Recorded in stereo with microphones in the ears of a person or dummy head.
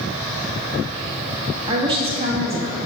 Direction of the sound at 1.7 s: 25° right (ahead or behind).